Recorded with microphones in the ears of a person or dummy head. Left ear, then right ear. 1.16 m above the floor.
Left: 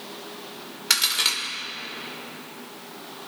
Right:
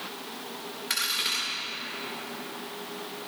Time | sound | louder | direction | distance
0.9 | a crack | left 6 dB | 40° left (ahead or behind) | 4.5 m